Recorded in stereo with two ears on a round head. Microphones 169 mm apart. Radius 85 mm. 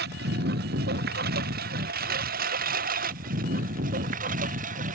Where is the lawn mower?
60° right (ahead or behind); by 5.0 s 45° right (ahead or behind).